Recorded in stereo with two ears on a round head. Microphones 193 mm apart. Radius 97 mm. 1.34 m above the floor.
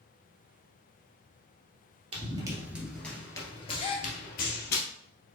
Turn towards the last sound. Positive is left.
turn(degrees=25)  # may be behind; listen again after turning